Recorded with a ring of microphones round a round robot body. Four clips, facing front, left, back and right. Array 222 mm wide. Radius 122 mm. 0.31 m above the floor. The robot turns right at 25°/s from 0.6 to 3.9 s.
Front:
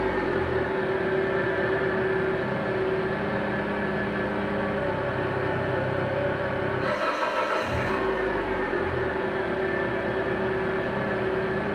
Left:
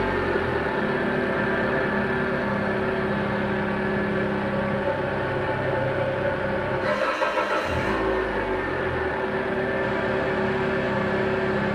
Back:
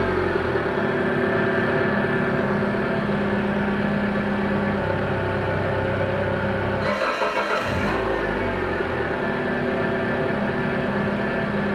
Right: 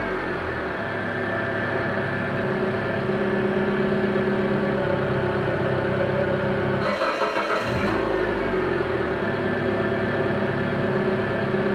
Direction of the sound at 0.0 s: 155° left.